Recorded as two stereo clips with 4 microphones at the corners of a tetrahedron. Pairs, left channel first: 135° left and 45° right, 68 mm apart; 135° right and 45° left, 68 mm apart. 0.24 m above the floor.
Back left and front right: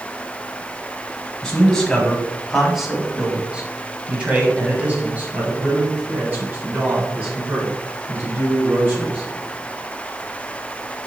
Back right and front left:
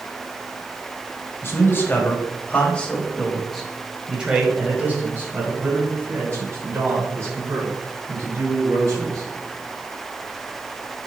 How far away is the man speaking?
About 1.7 m.